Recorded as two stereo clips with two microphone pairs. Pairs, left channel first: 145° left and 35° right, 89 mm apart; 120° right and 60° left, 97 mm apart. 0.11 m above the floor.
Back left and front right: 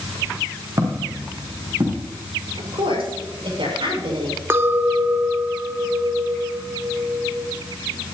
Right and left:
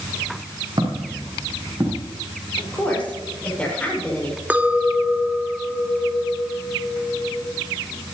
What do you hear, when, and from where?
0.8 s footsteps: 20° left, 4.5 m; by 2.0 s 5° left, 4.5 m
2.6 s a woman speaking: 40° right, 7 m
4.5 s a clink: 5° left, 0.8 m